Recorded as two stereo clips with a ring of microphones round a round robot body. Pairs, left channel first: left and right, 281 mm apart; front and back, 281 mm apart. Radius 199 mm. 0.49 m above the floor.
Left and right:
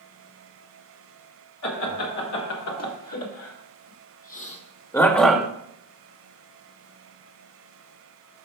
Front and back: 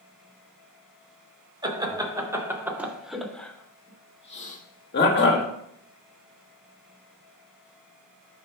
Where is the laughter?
105° left, 3 m; by 5.5 s 5° right, 1.7 m.